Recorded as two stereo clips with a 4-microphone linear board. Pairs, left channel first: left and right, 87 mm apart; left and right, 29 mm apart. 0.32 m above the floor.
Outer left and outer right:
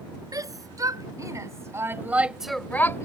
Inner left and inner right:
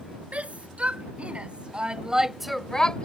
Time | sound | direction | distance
0.3 | a shout | 45° right (ahead or behind) | ?